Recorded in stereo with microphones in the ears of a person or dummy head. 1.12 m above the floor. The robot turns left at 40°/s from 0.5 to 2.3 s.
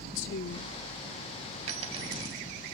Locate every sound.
0.1 s a woman speaking: 60° left (ahead or behind), 1.3 m; by 0.8 s 65° left (ahead or behind), 1.3 m
1.7 s a dropped coin: 45° right (ahead or behind), 2.5 m; by 2.5 s 20° right (ahead or behind), 2.5 m